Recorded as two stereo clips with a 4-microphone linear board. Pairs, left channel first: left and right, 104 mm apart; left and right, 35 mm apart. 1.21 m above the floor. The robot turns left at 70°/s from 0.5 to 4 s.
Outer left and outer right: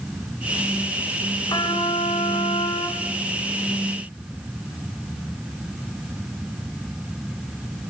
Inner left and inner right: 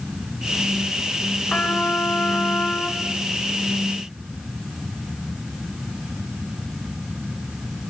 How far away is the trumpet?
About 5 m.